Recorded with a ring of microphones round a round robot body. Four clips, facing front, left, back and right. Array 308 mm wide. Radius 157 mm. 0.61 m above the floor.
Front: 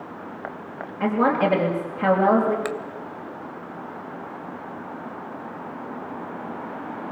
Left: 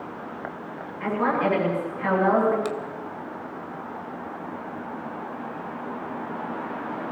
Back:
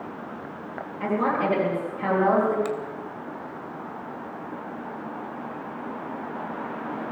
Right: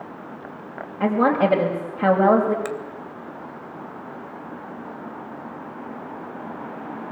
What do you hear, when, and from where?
1.0 s a woman speaking: 70° right, 3.5 m
2.6 s a finger snap: 25° right, 0.8 m